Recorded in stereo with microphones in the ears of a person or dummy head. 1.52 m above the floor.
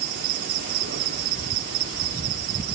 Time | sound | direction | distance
0.0 | an insect | 50° right (ahead or behind) | 1.9 m